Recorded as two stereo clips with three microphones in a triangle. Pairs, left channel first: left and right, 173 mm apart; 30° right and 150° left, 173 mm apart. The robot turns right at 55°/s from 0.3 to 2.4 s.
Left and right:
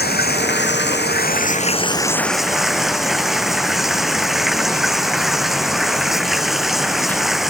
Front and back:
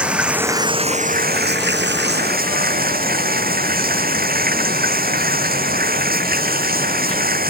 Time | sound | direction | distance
0.0 | running water | 65° left | ?